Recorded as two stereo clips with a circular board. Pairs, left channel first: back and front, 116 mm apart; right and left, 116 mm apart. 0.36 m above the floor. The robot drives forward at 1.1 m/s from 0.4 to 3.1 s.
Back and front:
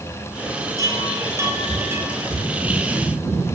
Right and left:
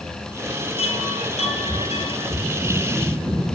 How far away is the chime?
About 8 m.